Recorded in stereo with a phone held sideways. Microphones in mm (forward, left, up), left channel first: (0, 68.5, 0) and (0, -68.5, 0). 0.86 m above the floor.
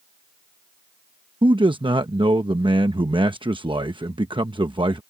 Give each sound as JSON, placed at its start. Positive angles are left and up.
{"t": 1.4, "sound": "a man speaking", "side_deg": -40}